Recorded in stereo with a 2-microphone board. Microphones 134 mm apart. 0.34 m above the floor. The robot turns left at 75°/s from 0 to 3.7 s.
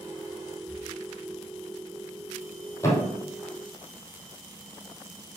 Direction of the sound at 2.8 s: 20° left (ahead or behind).